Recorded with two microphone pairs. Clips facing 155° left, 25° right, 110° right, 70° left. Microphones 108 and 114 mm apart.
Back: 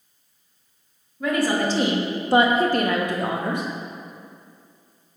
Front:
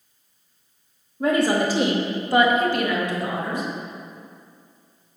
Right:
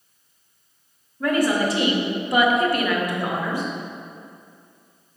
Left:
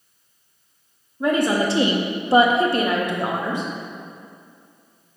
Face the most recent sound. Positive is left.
turn(degrees=135)